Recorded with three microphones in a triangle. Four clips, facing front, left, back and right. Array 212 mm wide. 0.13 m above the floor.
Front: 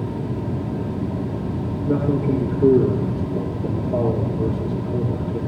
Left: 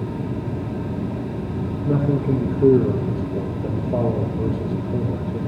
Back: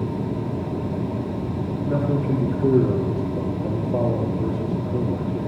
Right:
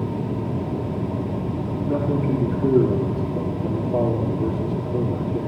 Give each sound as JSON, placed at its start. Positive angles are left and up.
{"t": 1.9, "sound": "a man speaking", "azimuth_deg": 65, "distance_m": 4.5}